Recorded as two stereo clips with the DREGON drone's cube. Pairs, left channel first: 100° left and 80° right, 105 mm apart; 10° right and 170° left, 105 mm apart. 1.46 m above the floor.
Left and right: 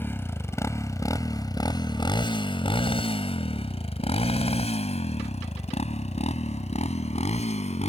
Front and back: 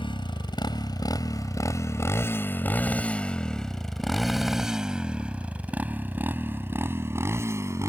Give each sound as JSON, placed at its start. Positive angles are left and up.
{"t": 0.0, "sound": "a motorcycle", "azimuth_deg": 30}